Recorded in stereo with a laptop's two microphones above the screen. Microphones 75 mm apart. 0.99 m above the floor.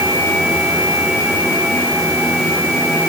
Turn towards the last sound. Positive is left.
No sound to turn to.